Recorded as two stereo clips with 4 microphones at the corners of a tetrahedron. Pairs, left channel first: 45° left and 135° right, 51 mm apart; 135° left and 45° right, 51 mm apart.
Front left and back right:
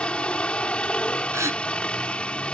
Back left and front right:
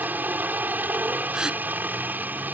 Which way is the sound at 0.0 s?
15° right.